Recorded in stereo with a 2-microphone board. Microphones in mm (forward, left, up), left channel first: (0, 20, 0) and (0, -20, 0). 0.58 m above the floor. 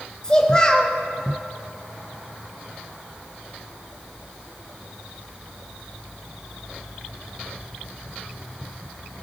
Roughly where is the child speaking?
Centre.